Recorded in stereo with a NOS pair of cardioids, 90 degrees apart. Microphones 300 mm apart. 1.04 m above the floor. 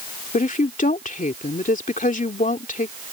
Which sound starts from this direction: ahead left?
A woman speaking, at 0.3 s.